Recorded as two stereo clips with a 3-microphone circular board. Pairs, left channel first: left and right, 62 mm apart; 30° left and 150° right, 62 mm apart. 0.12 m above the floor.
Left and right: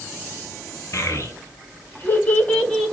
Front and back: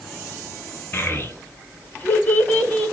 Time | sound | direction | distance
0.9 | a child speaking | 75° left | 1.4 m